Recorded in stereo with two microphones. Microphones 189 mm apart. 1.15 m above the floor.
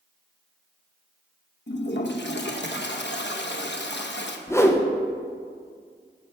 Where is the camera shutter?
I don't hear a camera shutter.